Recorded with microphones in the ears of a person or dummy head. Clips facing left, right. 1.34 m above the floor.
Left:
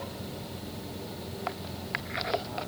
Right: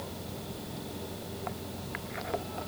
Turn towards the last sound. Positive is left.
No sound to turn to.